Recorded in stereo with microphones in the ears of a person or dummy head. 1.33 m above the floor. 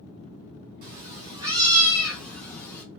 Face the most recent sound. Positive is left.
turn(degrees=20)  # may be behind; listen again after turning